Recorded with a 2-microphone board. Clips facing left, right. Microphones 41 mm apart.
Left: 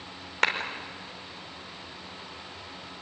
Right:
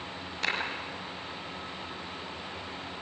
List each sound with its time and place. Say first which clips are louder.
0.4 s a clap: left 6 dB; 65° left (ahead or behind), 4.5 m